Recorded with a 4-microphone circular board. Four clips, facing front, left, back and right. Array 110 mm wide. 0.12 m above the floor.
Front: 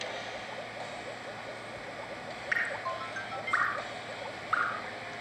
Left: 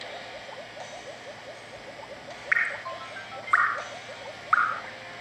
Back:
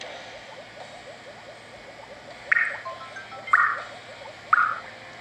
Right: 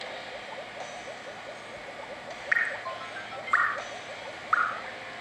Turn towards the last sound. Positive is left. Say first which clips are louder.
# left 1 dB, back 7 dB
turn(degrees=170)